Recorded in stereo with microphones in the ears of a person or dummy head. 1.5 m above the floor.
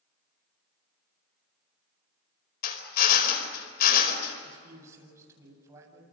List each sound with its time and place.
2.6 s a drill: 50° left (ahead or behind), 4.5 m
4.5 s a man speaking: 20° right (ahead or behind), 8 m